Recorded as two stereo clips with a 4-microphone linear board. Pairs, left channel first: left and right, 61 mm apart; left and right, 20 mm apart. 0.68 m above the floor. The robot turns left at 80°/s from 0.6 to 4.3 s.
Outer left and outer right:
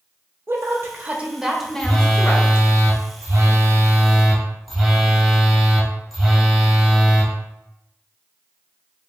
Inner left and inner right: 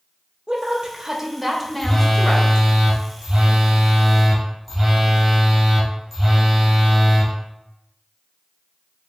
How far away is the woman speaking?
About 0.7 m.